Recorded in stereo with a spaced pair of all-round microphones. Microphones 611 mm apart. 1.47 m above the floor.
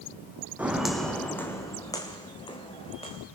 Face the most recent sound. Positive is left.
turn(degrees=10)  # may be behind; listen again after turning